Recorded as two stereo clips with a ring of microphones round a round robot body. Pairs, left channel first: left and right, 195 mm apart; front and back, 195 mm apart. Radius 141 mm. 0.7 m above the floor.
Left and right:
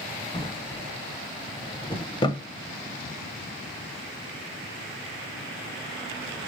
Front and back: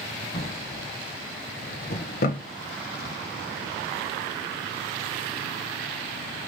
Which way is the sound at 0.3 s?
30° left.